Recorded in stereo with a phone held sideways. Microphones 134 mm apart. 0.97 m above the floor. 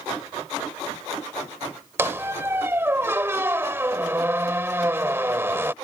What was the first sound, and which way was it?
A squeak, 20° right (ahead or behind).